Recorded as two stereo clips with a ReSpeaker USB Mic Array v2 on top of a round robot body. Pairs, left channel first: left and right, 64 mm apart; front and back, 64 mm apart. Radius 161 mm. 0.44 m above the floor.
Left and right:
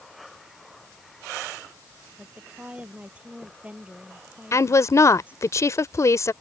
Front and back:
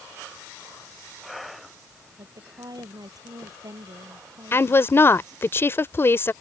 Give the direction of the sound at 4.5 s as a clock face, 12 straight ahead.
10 o'clock.